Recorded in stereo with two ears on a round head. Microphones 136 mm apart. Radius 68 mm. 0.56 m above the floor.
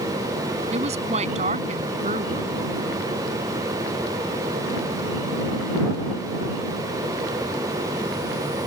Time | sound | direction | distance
0.7 | a woman speaking | 45° right (ahead or behind) | ?